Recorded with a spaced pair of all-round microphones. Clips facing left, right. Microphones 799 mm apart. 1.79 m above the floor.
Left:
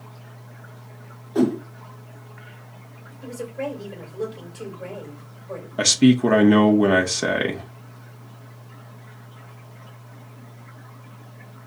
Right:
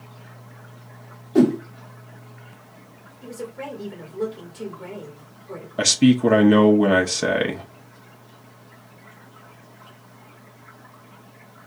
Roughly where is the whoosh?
Right.